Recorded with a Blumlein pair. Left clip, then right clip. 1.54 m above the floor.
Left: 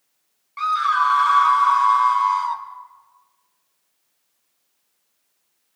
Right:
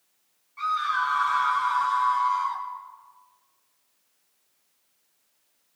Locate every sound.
0.6 s a scream: 35° left, 3 m